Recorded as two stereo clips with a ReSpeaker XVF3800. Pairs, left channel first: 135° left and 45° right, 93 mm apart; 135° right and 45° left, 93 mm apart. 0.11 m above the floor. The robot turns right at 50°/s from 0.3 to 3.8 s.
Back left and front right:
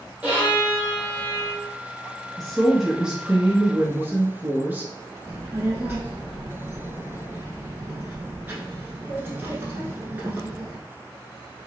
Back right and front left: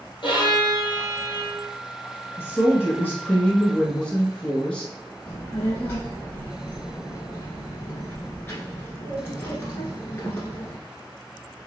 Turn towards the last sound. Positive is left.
turn(degrees=-95)